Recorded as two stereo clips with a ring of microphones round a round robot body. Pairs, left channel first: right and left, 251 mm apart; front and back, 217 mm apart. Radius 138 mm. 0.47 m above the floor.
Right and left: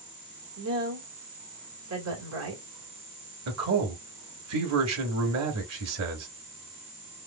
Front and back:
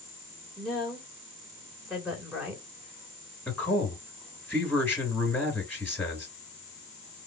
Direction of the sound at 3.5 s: 80° left.